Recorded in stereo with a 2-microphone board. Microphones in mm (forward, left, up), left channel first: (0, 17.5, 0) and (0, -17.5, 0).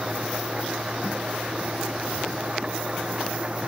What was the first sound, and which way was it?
An engine running, 30° right (ahead or behind).